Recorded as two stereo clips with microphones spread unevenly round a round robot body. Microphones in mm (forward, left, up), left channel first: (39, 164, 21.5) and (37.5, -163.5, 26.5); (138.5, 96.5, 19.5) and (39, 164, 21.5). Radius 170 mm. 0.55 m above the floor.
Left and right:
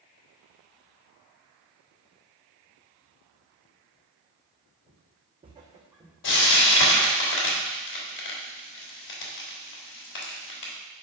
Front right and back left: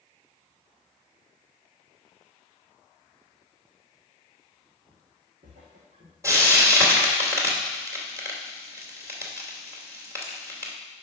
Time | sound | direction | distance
4.9 | footsteps | 155° right | 2 m
6.2 | frying | 80° left | 3 m